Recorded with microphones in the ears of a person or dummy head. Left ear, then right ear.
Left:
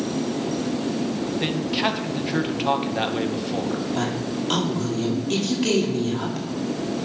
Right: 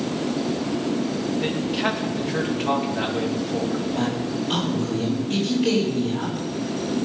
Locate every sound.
1.4 s a man speaking: 45° left (ahead or behind), 2.5 m
4.0 s a woman speaking: 60° left (ahead or behind), 5 m